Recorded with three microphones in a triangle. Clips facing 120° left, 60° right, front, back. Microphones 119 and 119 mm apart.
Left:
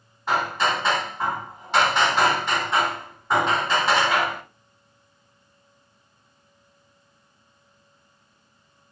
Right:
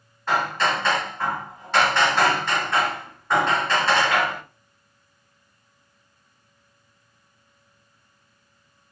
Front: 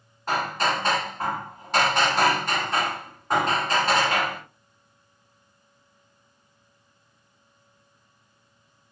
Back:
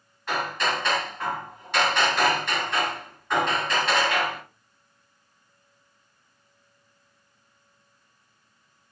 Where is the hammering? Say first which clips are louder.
Even, front 2 dB; 45° left, 1.9 m.